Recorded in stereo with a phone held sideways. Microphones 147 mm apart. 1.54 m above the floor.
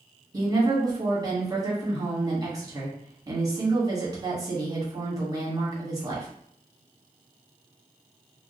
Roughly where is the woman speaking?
Right.